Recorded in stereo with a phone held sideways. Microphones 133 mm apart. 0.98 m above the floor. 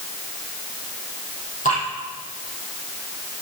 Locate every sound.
1.6 s dripping: 75° left (ahead or behind), 6.5 m